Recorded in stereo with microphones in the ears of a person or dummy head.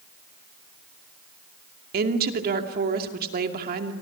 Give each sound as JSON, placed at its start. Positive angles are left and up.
{"t": 1.9, "sound": "a woman speaking", "side_deg": -50, "distance_m": 2.5}